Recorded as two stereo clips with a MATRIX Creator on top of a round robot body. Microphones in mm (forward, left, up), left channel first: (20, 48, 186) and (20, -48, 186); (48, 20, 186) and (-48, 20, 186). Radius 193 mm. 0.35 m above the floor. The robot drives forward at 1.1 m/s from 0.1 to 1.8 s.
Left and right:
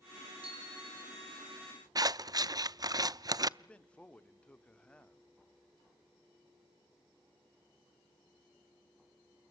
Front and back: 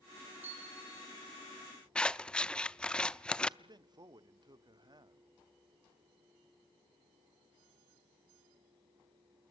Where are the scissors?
75° right, 0.8 m.